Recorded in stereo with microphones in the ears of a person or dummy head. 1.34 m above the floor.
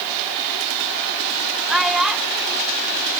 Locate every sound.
1.7 s a child speaking: centre (ahead or behind)